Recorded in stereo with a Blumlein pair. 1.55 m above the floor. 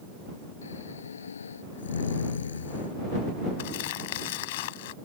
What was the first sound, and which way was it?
Snoring, 70° left.